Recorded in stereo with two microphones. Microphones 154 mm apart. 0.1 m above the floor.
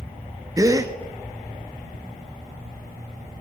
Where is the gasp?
20° right (ahead or behind), 0.7 m.